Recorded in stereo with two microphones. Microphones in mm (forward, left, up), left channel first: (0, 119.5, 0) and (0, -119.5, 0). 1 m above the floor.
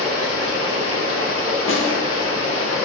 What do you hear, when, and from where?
0.0 s running water: 70° right (ahead or behind), 1.1 m
1.7 s a snare drum: 60° left (ahead or behind), 1.1 m